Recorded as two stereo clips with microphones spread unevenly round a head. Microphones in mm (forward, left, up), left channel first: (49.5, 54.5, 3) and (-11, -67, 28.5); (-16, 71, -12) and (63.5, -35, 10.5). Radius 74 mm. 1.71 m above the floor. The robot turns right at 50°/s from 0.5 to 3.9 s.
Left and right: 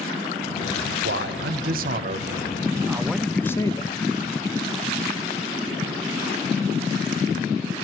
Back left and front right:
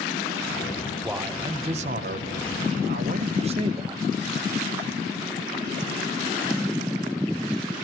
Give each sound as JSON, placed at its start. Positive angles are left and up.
{"t": 1.0, "sound": "a man speaking", "azimuth_deg": -135, "distance_m": 1.4}